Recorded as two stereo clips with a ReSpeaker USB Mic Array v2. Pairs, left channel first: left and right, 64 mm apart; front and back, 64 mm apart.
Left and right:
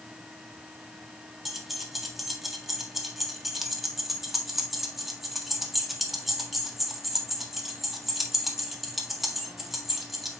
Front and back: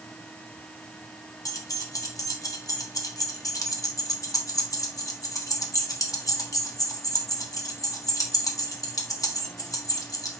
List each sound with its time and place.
1.4 s keys jangling: 5° right, 1.4 m